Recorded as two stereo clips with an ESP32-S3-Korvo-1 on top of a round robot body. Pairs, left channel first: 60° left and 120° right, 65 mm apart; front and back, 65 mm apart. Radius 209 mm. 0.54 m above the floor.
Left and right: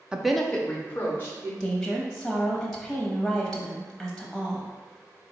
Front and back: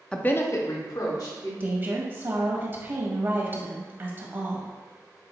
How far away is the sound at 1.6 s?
About 1.0 m.